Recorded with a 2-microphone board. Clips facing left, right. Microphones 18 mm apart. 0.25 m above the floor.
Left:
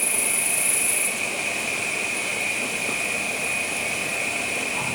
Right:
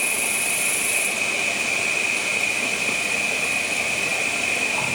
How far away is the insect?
About 1.1 m.